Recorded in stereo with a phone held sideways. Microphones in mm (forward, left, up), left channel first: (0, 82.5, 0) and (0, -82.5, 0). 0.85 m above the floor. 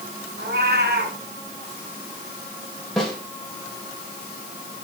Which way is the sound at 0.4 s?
80° right.